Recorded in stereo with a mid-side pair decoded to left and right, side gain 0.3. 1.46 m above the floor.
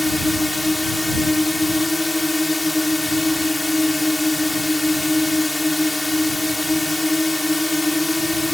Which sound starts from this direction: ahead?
A drone, at 0.0 s.